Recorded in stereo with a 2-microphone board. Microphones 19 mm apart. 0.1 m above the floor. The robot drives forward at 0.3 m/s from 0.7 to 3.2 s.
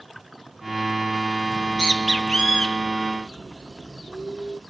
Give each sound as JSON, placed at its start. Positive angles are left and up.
{"t": 1.5, "sound": "a bird", "side_deg": 50, "distance_m": 1.4}